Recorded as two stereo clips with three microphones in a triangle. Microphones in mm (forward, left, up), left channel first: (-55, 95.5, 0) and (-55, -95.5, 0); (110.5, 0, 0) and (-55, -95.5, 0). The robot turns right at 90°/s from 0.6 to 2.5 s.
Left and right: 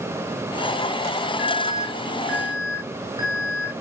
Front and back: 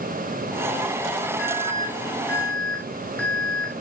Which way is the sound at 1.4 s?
110° left.